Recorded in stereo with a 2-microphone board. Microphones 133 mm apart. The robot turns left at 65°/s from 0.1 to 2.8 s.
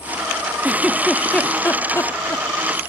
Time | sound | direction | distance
0.6 | a giggle | 15° right (ahead or behind) | ?